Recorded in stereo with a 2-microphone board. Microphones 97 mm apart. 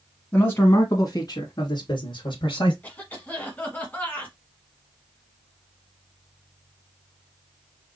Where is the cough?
15° left (ahead or behind), 1.4 m.